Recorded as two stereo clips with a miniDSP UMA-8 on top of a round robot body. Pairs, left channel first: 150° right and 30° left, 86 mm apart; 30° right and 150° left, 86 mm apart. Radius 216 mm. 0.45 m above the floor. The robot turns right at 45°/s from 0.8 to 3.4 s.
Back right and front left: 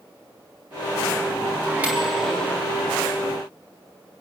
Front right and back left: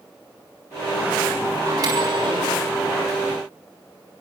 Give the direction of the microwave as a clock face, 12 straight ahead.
9 o'clock.